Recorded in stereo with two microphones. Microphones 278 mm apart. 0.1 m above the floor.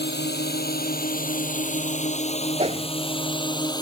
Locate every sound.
0.0 s a drone: 40° left (ahead or behind); by 3.8 s 15° left (ahead or behind)
2.6 s a whoosh: 20° right (ahead or behind)